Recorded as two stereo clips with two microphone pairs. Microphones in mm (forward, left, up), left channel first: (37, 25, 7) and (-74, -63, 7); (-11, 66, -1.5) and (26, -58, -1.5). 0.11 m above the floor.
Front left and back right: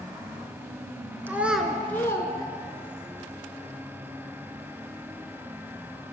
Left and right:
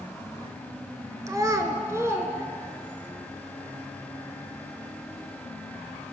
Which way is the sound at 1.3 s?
90° right.